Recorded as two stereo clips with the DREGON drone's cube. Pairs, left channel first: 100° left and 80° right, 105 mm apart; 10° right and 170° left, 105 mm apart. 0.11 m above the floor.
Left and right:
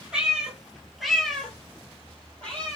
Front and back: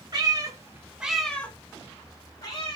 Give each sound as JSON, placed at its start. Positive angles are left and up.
{"t": 0.1, "sound": "a cat meowing", "azimuth_deg": -160, "distance_m": 0.9}